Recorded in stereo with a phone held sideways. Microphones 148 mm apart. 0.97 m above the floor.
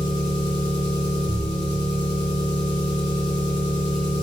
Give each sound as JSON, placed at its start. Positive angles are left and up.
{"t": 0.0, "sound": "an engine running", "side_deg": 30, "distance_m": 2.0}